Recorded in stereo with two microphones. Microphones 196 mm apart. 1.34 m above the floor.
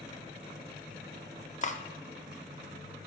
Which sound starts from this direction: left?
Cutlery clinking, at 1.6 s.